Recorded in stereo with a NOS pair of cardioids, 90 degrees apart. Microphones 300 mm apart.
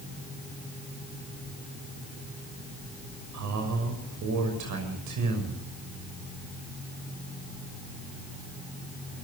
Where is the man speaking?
65° right, 6 m.